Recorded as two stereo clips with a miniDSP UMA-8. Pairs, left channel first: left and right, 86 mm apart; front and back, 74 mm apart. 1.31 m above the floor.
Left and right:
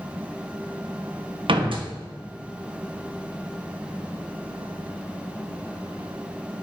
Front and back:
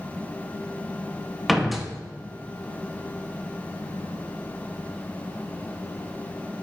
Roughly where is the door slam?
Right.